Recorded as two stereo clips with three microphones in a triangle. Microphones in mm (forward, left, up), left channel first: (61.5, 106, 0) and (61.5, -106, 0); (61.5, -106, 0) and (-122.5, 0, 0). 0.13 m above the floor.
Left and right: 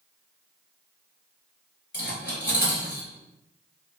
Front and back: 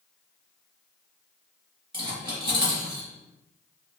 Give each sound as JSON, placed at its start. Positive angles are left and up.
{"t": 1.9, "sound": "cutlery clinking", "azimuth_deg": 90, "distance_m": 1.1}